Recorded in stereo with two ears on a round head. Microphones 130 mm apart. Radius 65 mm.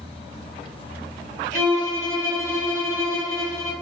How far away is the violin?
About 1.5 m.